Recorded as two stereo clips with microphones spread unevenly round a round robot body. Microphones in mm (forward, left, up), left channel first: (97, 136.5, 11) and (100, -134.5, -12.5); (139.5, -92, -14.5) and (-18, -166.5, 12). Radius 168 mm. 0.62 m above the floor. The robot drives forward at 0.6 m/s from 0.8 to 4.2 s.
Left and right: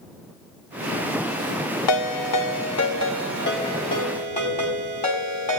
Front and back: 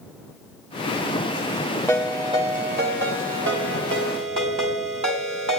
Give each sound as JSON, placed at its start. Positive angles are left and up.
{"t": 1.9, "sound": "a ringtone", "azimuth_deg": 110, "distance_m": 0.6}